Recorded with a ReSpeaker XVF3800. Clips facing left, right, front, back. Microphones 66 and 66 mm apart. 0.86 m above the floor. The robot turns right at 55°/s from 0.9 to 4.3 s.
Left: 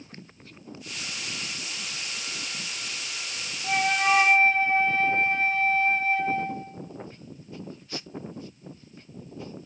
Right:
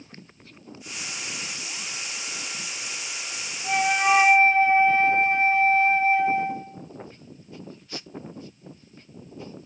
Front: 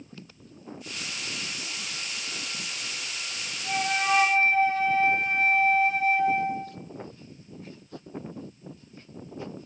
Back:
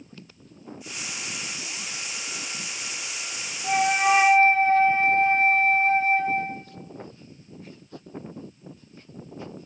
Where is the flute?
170° left, 0.9 m; by 6.7 s 150° right, 0.9 m.